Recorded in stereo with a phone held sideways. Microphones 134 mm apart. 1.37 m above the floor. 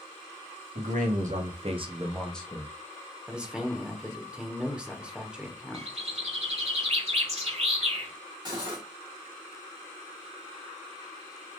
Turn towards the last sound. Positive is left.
turn(degrees=-30)  # may be behind; listen again after turning